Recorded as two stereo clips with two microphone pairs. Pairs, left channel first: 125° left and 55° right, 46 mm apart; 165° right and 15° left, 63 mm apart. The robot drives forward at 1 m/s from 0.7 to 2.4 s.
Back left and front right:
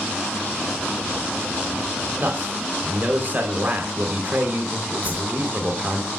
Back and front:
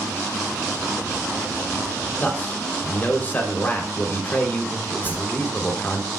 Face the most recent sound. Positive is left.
turn(degrees=-105)